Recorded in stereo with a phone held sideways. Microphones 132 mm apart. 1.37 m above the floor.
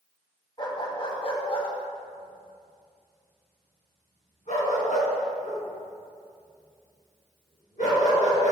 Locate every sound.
0.6 s a dog barking: 40° left (ahead or behind), 2 m; by 8.5 s 75° left (ahead or behind), 6 m